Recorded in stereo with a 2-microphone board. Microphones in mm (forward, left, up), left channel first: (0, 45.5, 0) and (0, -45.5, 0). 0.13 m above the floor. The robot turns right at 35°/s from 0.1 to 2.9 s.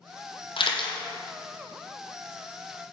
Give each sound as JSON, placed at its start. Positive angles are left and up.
{"t": 0.6, "sound": "a camera shutter", "side_deg": 70, "distance_m": 1.1}